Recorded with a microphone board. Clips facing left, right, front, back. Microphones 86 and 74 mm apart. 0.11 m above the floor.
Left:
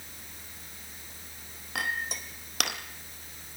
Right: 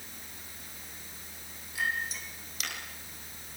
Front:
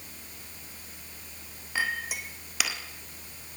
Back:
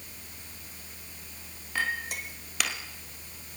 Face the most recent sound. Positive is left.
turn(degrees=85)